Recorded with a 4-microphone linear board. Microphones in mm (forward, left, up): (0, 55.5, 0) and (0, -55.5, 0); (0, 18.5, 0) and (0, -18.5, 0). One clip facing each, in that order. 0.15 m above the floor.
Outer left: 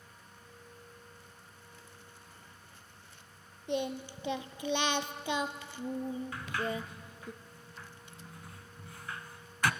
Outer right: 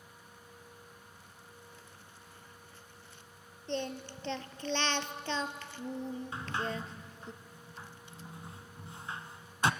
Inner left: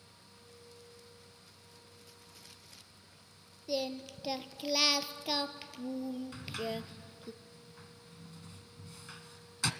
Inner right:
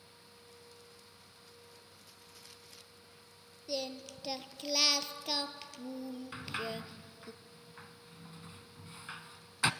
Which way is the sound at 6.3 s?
25° right (ahead or behind).